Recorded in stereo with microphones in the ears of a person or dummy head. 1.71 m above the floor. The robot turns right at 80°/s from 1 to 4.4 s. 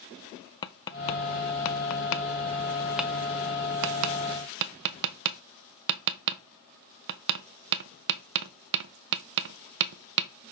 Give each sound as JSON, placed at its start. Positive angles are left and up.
{"t": 0.6, "sound": "tapping", "side_deg": 25, "distance_m": 0.6}